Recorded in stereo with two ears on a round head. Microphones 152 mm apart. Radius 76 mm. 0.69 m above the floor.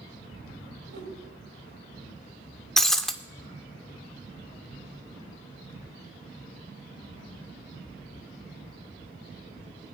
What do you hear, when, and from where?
0.9 s a whoosh: 85° right, 5 m
2.8 s breaking glass: 5° left (ahead or behind), 0.5 m